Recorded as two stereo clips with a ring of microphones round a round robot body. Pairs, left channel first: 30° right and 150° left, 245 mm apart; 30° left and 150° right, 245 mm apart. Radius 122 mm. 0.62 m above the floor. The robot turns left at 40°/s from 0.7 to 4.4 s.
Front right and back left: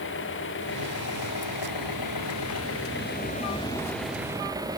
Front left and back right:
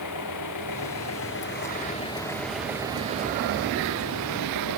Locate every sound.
0.0 s an engine running: 15° left; by 4.8 s 135° right